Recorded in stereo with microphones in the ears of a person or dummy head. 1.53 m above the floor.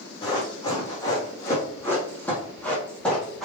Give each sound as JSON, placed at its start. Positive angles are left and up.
{"t": 0.2, "sound": "running footsteps", "side_deg": 25, "distance_m": 3.5}